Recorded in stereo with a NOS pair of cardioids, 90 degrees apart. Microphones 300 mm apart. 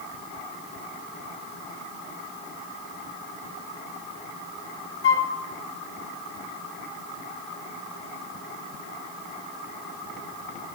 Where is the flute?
45° left, 2.5 m.